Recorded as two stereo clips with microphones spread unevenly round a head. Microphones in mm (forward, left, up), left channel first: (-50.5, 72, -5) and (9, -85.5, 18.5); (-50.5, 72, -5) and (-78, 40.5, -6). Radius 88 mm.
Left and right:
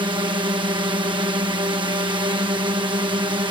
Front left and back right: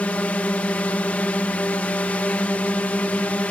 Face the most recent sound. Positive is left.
turn(degrees=-5)